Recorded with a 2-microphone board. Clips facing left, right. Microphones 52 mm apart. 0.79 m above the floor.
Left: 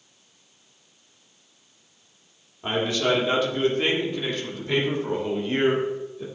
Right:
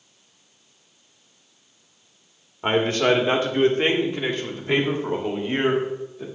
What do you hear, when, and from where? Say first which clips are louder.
2.6 s a man speaking: right 4 dB; 45° right (ahead or behind), 1.5 m; by 6.2 s 15° right (ahead or behind), 3 m